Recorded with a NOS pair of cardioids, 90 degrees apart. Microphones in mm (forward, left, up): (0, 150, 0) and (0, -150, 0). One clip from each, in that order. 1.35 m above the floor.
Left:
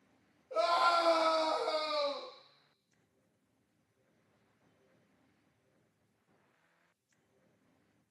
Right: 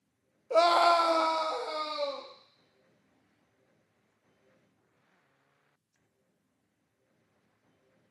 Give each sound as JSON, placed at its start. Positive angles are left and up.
{"t": 0.5, "sound": "a scream", "azimuth_deg": -65, "distance_m": 0.5}